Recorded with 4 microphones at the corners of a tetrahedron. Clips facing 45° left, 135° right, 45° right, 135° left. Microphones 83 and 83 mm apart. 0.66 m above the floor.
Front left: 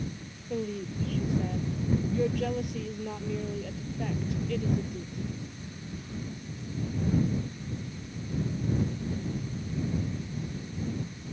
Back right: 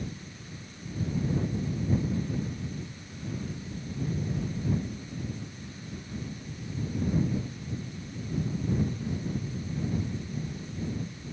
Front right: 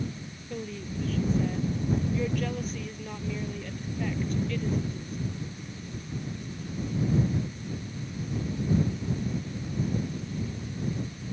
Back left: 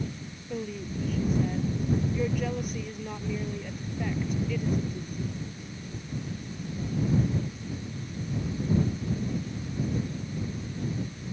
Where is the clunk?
No clunk in this recording.